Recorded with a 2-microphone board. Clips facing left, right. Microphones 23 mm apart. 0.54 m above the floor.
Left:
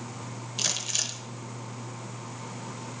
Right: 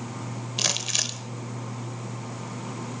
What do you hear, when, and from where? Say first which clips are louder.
0.6 s crumpling: right 3 dB; 30° right (ahead or behind), 0.8 m